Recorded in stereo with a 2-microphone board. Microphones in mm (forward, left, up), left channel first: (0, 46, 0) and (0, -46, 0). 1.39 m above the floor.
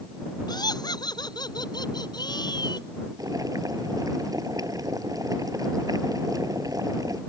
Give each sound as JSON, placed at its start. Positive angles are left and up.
{"t": 0.5, "sound": "laughter", "side_deg": 50}
{"t": 3.2, "sound": "boiling", "side_deg": -40}